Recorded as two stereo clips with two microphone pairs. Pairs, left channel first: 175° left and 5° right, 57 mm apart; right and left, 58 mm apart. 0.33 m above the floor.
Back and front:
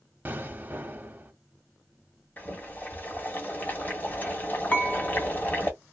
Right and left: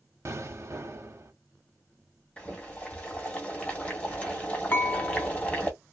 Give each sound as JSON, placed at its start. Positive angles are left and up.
{"t": 0.2, "sound": "an explosion", "azimuth_deg": 55, "distance_m": 0.6}
{"t": 2.4, "sound": "boiling", "azimuth_deg": -150, "distance_m": 1.2}
{"t": 4.7, "sound": "dishes clattering", "azimuth_deg": -135, "distance_m": 0.8}